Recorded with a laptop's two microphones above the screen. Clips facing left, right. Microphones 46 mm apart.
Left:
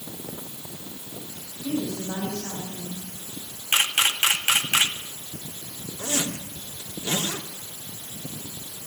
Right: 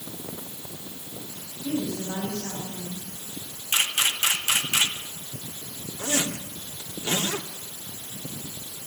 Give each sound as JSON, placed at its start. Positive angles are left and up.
{"t": 1.6, "sound": "a woman speaking", "side_deg": 0, "distance_m": 7.0}
{"t": 3.7, "sound": "a camera shutter", "side_deg": 40, "distance_m": 2.5}
{"t": 6.0, "sound": "a zipper", "side_deg": -30, "distance_m": 3.0}